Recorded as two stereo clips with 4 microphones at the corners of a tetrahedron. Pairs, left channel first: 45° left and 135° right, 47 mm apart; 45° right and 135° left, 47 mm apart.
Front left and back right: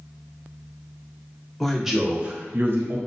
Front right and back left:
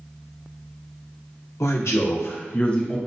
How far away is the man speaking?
About 0.8 m.